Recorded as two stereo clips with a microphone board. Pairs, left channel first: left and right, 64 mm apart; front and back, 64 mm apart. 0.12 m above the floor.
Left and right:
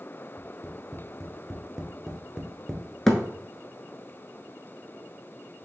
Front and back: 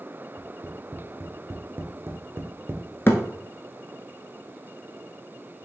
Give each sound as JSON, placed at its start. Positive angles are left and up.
{"t": 0.4, "sound": "tapping", "azimuth_deg": 180, "distance_m": 0.8}
{"t": 3.1, "sound": "a thud", "azimuth_deg": 15, "distance_m": 0.8}